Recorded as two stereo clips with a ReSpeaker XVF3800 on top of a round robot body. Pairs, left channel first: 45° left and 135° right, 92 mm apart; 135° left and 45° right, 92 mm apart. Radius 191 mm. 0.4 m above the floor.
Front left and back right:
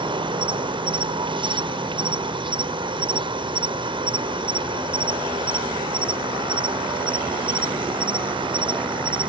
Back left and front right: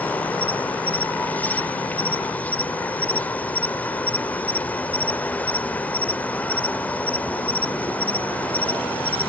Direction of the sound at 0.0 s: 150° right.